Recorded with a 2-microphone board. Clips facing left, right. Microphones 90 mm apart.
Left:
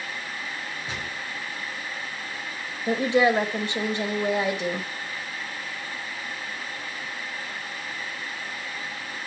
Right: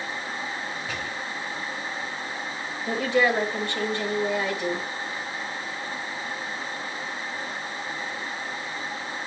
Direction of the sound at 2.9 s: 20° left (ahead or behind).